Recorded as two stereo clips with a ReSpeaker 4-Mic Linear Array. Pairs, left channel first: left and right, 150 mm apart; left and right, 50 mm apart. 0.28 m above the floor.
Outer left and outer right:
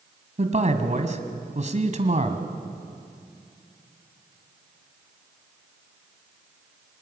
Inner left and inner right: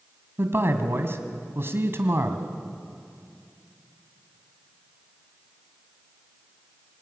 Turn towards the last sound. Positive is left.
turn(degrees=-50)  # may be behind; listen again after turning